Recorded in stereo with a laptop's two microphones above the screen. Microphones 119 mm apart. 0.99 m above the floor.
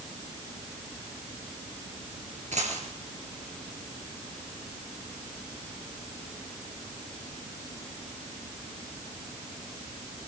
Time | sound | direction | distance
2.5 | a dropped coin | 75° right (ahead or behind) | 3.5 m